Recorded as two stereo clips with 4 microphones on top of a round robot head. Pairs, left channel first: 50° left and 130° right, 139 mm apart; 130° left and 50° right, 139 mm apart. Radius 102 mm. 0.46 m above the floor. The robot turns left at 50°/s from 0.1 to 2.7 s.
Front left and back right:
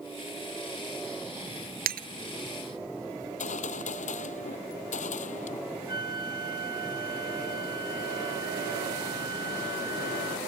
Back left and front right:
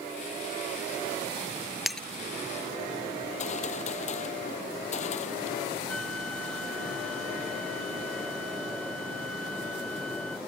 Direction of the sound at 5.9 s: 45° left.